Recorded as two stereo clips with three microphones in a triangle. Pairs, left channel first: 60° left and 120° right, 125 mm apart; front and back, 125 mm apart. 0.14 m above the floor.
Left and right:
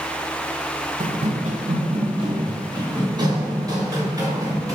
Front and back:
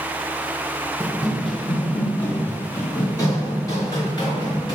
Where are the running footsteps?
110° right, 0.7 m; by 4.8 s 55° right, 2.5 m.